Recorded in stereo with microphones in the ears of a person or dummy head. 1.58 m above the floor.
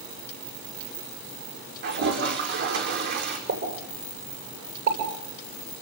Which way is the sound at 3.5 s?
60° right (ahead or behind).